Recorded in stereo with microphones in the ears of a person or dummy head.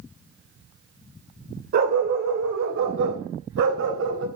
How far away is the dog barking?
About 2.5 m.